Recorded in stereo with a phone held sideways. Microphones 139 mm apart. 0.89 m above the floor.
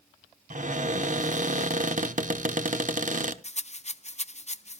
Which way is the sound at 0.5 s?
60° right (ahead or behind).